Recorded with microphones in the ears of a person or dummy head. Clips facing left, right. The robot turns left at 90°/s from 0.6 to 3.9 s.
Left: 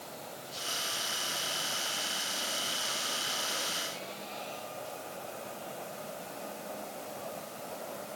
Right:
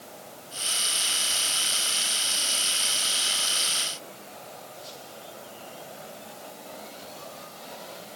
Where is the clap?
No clap in this recording.